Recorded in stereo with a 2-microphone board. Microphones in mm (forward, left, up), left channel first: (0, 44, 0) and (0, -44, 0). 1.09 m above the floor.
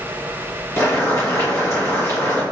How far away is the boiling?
About 1.3 m.